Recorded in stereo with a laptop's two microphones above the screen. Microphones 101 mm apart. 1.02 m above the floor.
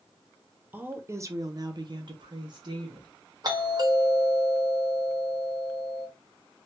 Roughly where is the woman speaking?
Centre.